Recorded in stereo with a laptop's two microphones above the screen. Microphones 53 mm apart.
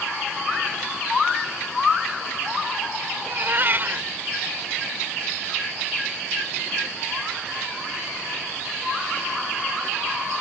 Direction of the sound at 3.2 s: 45° right (ahead or behind).